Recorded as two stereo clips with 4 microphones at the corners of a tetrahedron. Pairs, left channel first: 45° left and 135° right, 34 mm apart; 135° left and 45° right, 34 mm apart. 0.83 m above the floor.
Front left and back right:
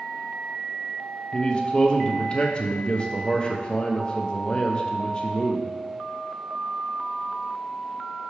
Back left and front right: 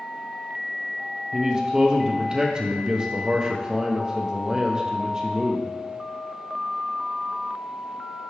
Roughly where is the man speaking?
Ahead.